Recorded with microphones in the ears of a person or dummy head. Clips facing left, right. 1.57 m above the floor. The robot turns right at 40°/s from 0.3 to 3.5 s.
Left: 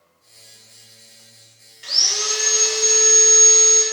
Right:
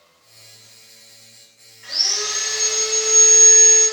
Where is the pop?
I don't hear a pop.